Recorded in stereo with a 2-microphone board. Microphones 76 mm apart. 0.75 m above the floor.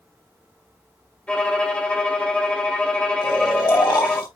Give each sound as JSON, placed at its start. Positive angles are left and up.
{"t": 1.3, "sound": "a violin", "side_deg": 15, "distance_m": 2.5}
{"t": 3.2, "sound": "snoring", "side_deg": 75, "distance_m": 5.0}